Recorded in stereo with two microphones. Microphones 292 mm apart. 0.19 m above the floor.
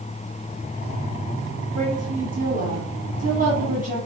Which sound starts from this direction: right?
A woman speaking, at 1.8 s.